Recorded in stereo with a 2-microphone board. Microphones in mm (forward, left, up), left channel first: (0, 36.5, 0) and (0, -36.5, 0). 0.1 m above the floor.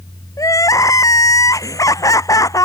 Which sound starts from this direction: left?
Crying, at 0.4 s.